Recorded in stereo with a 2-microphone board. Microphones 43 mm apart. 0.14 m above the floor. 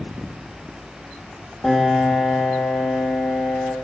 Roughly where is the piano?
Centre.